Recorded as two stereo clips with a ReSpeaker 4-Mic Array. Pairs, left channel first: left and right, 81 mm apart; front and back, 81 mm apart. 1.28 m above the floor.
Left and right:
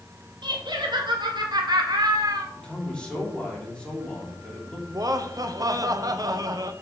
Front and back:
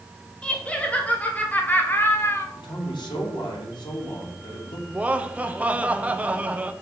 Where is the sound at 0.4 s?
75° right, 2.5 m; by 2.5 s 55° right, 1.4 m.